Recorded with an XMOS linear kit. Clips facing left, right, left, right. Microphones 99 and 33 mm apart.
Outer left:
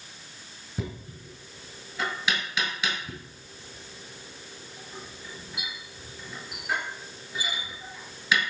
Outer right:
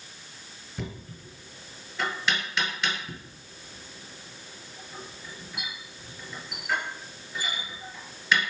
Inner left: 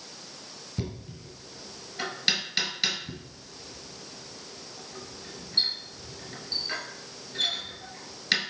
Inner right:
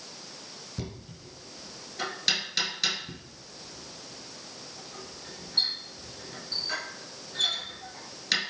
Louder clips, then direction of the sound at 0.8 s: Outer left 2 dB, inner left 4 dB; 10° left (ahead or behind).